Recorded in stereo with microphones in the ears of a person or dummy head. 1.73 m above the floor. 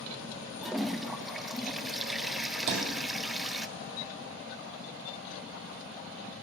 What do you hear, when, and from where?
0.6 s a toilet flushing: 5° right (ahead or behind), 0.7 m
2.7 s a thud: 60° right (ahead or behind), 3.5 m